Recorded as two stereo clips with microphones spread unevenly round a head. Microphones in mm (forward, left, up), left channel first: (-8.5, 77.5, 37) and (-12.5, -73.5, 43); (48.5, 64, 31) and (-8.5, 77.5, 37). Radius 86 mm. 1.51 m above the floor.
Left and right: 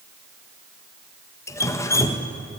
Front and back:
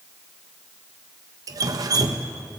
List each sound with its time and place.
1.5 s dripping: 160° left, 1.2 m